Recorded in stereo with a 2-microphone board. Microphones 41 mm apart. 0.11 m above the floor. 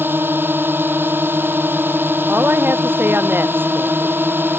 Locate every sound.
0.0 s a drone: 60° right (ahead or behind)
2.3 s a woman speaking: 60° right (ahead or behind)